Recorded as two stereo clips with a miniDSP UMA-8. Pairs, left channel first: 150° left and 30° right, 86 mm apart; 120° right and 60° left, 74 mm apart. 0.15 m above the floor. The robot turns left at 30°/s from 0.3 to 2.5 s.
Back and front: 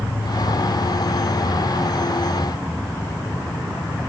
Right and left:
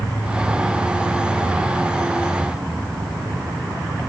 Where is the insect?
160° left, 7 m; by 4.1 s 95° left, 7 m.